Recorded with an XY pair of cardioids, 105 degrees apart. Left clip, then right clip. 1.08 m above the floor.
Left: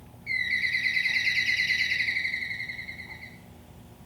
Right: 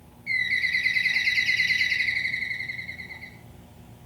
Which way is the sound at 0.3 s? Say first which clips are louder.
Right 2 dB; 10° right.